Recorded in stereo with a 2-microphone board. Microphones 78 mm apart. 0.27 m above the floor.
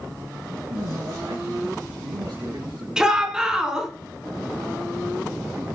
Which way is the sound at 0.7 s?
75° right (ahead or behind).